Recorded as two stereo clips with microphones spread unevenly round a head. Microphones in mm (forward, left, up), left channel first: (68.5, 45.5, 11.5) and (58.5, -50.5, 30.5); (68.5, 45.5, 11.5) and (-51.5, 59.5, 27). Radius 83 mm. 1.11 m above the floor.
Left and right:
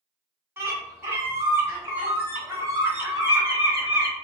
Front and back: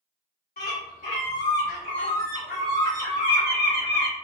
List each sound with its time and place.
0.6 s a bird: 40° right, 1.8 m